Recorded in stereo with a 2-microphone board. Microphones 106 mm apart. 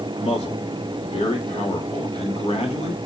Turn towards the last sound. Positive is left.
turn(degrees=80)